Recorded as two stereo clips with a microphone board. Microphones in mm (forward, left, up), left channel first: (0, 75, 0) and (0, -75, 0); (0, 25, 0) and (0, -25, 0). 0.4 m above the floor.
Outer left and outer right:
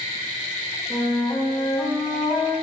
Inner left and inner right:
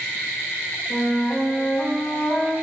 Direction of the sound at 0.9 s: 5° right (ahead or behind).